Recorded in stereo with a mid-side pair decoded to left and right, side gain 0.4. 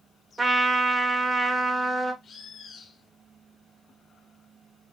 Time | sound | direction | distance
0.4 | a trumpet | 30° right | 0.8 m
2.2 | a bird | 60° left | 0.7 m